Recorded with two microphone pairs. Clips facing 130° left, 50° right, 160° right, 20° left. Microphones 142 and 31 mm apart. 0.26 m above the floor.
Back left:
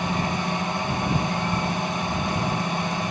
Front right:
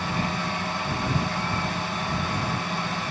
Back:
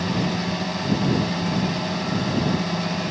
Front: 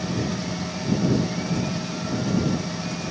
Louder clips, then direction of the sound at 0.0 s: Back left 3 dB, back 3 dB; 165° right.